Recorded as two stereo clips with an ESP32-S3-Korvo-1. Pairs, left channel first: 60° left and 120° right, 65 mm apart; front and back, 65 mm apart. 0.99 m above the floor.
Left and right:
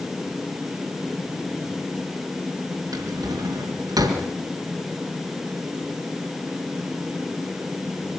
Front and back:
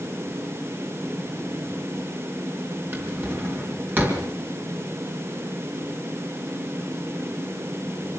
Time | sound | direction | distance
2.9 | a drawer | 125° right | 4.5 m